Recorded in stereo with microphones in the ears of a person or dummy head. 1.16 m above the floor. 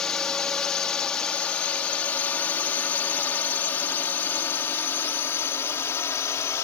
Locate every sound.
0.0 s a drone: 5° left (ahead or behind); by 6.7 s 15° left (ahead or behind)